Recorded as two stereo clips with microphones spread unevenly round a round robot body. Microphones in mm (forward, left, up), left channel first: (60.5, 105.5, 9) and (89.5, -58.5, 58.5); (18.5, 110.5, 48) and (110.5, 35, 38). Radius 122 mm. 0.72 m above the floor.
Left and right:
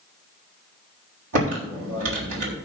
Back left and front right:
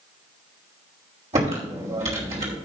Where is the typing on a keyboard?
80° right, 3.5 m.